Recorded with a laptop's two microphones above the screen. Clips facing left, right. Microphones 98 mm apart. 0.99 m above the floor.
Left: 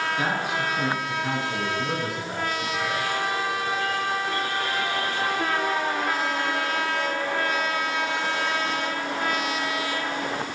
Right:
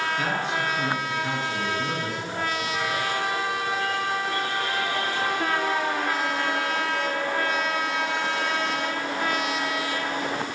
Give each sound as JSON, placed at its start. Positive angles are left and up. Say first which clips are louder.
{"t": 0.2, "sound": "a man speaking", "louder": "even", "side_deg": 10, "distance_m": 8.0}